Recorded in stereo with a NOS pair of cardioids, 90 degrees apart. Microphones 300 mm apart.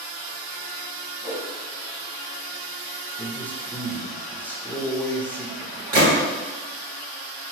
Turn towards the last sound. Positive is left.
turn(degrees=-65)